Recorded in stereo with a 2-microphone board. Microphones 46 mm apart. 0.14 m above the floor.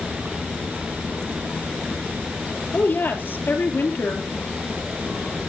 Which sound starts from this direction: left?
A woman speaking, at 2.7 s.